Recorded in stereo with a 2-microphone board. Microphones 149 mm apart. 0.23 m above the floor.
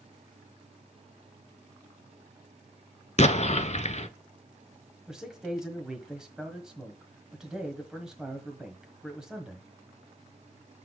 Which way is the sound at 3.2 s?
50° left (ahead or behind).